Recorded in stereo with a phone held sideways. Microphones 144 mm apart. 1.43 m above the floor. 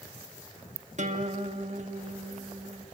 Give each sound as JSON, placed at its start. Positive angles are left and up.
{"t": 1.0, "sound": "a guitar", "side_deg": -55, "distance_m": 2.0}